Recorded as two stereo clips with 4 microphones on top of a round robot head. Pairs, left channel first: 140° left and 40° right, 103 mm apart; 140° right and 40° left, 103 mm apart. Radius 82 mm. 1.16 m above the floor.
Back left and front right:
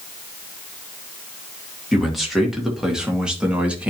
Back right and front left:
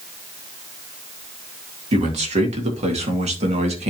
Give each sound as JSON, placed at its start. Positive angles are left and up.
{"t": 1.9, "sound": "a man speaking", "azimuth_deg": 50, "distance_m": 3.0}